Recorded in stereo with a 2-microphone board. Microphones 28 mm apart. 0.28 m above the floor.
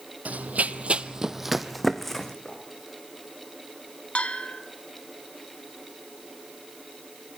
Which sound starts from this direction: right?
Running footsteps, at 0.2 s.